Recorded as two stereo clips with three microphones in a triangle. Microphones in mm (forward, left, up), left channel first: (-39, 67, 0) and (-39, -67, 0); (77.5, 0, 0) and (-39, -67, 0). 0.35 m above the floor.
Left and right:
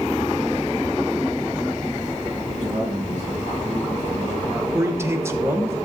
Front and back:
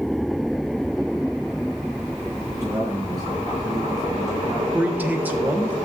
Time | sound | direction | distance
2.5 | a man speaking | 90° right | 5 m
4.7 | a man speaking | 100° right | 0.8 m